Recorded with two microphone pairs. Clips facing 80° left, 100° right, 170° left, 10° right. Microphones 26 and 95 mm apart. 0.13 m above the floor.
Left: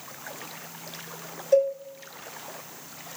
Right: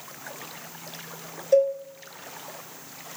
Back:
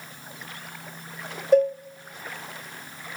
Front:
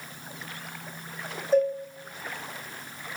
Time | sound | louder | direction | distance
1.5 | a cowbell | right 1 dB, back 4 dB | 170° left | 1.4 m